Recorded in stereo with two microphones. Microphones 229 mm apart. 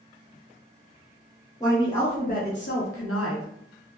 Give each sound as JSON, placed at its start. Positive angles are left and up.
{"t": 1.6, "sound": "a woman speaking", "side_deg": 15, "distance_m": 1.1}